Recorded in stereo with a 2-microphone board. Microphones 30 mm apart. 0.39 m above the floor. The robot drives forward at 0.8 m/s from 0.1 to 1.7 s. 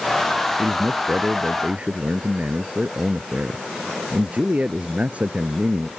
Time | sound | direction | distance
0.6 | a man speaking | 55° right (ahead or behind) | ?